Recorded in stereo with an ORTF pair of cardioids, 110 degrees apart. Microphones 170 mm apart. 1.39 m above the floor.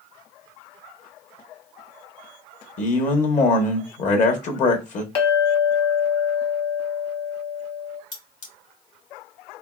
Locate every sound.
2.8 s a man speaking: 45° left, 1.1 m
5.2 s a clink: 35° left, 1.1 m
8.1 s cutlery clinking: 45° left, 1.8 m